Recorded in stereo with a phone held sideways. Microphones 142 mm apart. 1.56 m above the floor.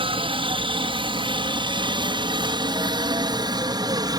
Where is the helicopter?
40° right (ahead or behind); by 4.2 s 30° right (ahead or behind).